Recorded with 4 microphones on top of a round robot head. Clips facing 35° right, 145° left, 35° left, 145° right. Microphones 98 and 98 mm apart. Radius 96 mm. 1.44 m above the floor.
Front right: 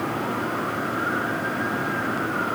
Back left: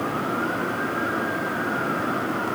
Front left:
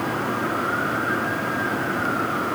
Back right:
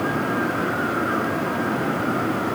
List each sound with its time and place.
Only background noise.